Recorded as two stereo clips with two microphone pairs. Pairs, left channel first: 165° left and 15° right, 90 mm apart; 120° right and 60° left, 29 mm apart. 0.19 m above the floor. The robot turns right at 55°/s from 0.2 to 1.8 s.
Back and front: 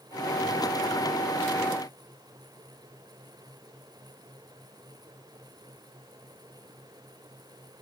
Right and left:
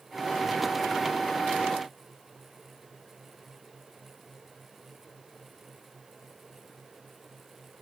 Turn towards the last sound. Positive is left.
No sound to turn to.